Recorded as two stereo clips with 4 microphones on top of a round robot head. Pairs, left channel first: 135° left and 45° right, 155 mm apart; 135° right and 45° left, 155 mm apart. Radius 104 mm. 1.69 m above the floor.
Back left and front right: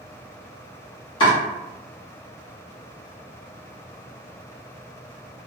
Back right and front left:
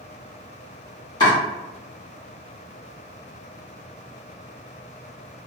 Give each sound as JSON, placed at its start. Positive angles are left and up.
{"t": 1.2, "sound": "chopping", "azimuth_deg": 175, "distance_m": 1.1}